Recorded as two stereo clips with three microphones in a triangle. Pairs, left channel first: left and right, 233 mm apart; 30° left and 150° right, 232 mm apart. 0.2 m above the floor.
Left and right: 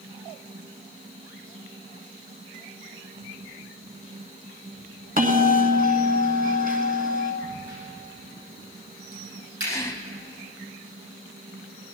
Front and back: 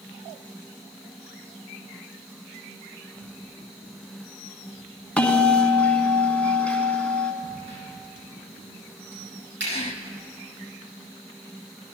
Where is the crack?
115° right, 7.5 m.